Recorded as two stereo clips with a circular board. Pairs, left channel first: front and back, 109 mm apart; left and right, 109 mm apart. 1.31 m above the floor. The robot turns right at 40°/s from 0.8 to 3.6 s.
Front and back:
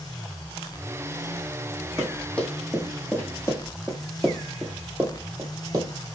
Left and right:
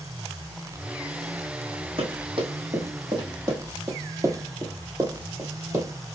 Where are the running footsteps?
90° right, 2.5 m; by 5.9 s 145° right, 1.7 m.